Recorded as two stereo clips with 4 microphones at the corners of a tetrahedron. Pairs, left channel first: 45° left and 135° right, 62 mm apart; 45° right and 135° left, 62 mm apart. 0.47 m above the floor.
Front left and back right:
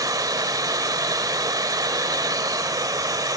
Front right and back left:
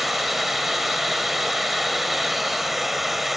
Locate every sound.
0.0 s running water: 140° right, 1.1 m